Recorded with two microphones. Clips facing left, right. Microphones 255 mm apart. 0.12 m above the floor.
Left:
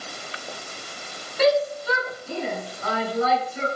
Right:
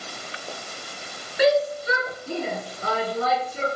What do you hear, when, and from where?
1.4 s a shout: 10° right (ahead or behind), 1.1 m; by 3.7 s 40° right (ahead or behind), 1.7 m